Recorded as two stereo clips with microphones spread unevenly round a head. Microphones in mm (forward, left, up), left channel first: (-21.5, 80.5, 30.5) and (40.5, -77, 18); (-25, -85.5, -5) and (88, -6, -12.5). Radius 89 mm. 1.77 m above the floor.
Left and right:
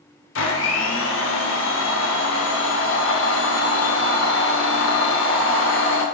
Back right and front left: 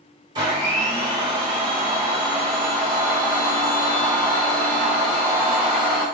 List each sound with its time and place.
0.3 s a blender: 100° left, 0.7 m